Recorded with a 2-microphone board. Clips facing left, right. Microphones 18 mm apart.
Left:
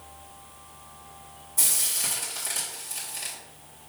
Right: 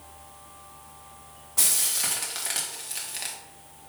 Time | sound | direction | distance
1.6 | frying | 45° right (ahead or behind) | 1.7 m